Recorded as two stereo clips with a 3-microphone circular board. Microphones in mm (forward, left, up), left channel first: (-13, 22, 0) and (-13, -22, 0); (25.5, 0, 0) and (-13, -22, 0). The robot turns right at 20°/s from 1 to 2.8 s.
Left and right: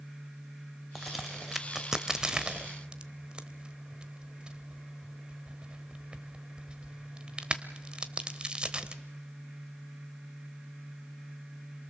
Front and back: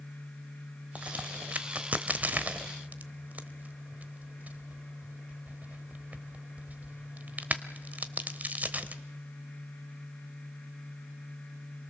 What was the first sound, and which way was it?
A crack, 175° right.